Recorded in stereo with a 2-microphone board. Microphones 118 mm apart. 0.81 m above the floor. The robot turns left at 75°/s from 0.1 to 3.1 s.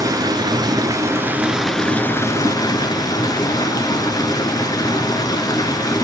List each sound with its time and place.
0.0 s running water: 60° right, 0.8 m; by 6.0 s 75° left, 0.8 m